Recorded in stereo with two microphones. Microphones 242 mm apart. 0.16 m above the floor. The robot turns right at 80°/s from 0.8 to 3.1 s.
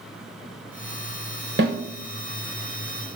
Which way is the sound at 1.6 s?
45° right (ahead or behind).